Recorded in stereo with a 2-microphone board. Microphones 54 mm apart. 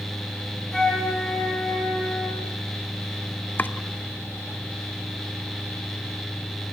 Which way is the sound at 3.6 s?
35° left (ahead or behind).